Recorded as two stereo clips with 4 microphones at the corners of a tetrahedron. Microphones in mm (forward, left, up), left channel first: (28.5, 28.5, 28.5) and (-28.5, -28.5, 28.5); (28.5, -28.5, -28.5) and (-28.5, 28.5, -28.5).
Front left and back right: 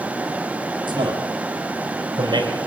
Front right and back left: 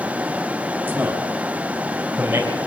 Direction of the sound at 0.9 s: 150° right.